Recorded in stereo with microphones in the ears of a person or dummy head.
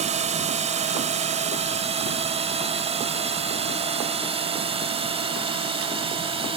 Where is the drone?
35° right (ahead or behind); by 6.6 s 30° right (ahead or behind).